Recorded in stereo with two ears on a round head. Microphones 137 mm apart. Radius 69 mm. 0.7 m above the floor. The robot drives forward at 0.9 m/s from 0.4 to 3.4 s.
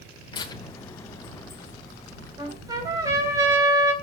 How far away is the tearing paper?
About 2.5 m.